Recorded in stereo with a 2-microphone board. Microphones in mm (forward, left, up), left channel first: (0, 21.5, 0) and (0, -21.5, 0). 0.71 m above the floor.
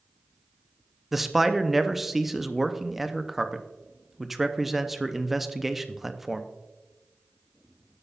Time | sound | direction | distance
1.1 | a man speaking | 5° right (ahead or behind) | 0.5 m